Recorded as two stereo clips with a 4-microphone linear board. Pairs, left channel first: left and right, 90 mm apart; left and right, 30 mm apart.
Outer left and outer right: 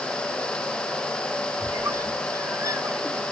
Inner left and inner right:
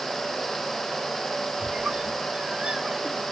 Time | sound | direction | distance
1.6 | a squeak | 35° right (ahead or behind) | 1.5 m